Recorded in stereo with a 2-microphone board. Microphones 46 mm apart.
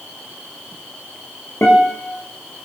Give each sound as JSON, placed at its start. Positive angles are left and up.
{"t": 1.6, "sound": "a guitar", "side_deg": 55, "distance_m": 5.5}